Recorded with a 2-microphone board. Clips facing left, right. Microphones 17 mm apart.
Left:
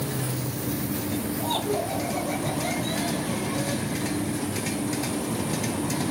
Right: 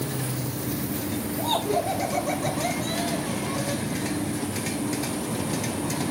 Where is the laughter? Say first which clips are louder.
Right 4 dB; 55° right (ahead or behind), 7 m; by 3.8 s 50° right (ahead or behind), 8 m.